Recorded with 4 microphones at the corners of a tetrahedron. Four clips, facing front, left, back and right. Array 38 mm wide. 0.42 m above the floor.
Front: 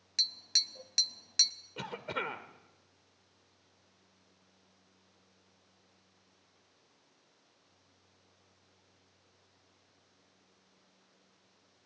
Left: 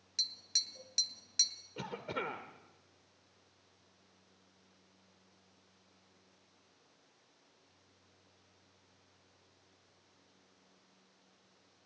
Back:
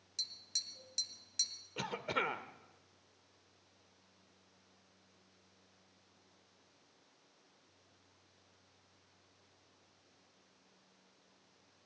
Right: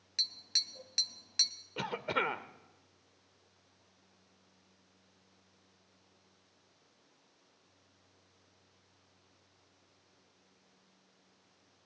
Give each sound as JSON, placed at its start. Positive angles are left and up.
{"t": 0.2, "sound": "tapping", "azimuth_deg": -30, "distance_m": 0.7}
{"t": 1.8, "sound": "a cough", "azimuth_deg": -80, "distance_m": 1.1}